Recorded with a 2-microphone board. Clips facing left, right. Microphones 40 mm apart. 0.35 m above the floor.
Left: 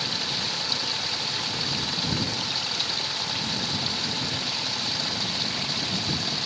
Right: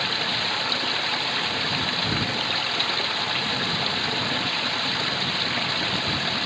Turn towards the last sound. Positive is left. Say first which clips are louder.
# right 5 dB
turn(degrees=-35)  # may be behind; listen again after turning